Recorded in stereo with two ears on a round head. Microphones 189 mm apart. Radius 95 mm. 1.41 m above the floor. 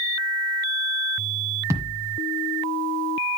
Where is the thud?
15° right (ahead or behind), 1.6 m.